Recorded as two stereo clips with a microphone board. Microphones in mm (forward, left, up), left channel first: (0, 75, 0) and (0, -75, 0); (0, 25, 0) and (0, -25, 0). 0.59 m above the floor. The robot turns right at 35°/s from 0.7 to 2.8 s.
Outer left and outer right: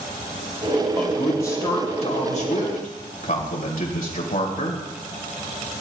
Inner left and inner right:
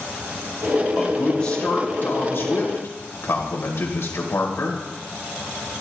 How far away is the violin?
I don't hear a violin.